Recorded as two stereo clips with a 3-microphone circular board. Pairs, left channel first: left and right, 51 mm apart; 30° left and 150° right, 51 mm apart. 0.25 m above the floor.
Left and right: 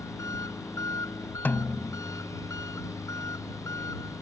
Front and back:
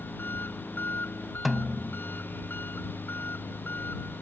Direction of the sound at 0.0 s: 80° left.